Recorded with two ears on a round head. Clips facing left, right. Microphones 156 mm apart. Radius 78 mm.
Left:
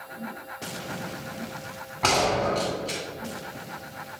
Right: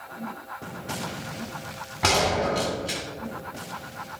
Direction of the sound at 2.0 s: 5° right (ahead or behind).